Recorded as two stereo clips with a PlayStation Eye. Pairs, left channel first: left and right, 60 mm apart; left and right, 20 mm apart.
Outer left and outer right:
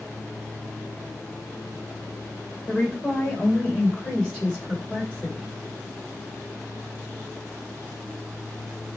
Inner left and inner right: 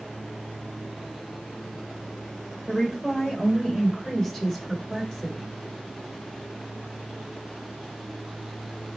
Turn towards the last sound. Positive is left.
turn(degrees=20)  # may be behind; listen again after turning